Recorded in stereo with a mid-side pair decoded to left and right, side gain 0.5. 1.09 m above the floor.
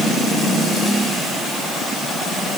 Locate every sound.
Only background noise.